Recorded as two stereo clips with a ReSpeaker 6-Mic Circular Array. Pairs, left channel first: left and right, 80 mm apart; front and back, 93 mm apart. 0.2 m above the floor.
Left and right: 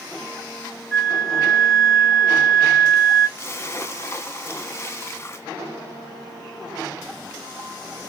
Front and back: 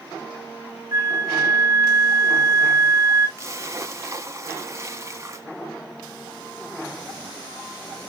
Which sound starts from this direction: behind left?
A splash, at 3.4 s.